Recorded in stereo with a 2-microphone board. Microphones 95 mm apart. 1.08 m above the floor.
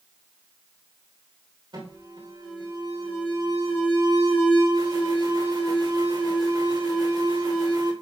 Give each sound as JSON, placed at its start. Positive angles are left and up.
{"t": 1.7, "sound": "an alarm", "side_deg": -55, "distance_m": 3.5}